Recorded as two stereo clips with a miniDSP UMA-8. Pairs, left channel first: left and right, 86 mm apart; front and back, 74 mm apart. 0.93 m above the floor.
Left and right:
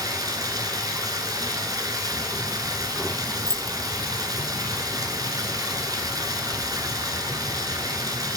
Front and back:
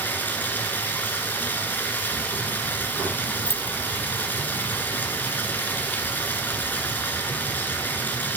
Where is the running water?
60° right, 1.4 m.